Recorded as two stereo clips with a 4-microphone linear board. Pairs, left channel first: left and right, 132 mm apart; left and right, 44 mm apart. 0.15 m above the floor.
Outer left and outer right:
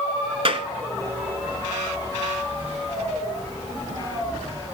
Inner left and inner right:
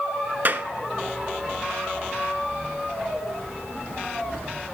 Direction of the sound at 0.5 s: 45° right (ahead or behind).